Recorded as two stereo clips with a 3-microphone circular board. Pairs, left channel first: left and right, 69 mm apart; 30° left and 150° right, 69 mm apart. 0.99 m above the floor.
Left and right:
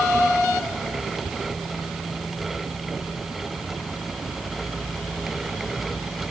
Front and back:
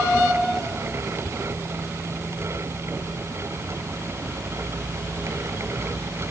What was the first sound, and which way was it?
Only background noise.